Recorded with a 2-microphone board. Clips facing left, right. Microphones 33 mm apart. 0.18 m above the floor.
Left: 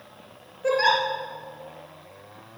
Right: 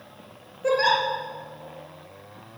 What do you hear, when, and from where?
0.6 s a giggle: centre (ahead or behind), 4.5 m